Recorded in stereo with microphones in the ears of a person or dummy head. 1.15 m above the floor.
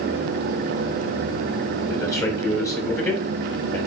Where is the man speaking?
20° left (ahead or behind), 3.5 m.